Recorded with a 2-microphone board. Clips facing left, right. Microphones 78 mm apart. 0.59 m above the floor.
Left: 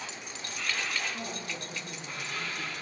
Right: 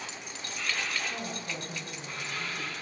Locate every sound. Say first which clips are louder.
1.1 s a woman speaking: right 1 dB; 70° right (ahead or behind), 3.5 m; by 2.8 s 65° right (ahead or behind), 3 m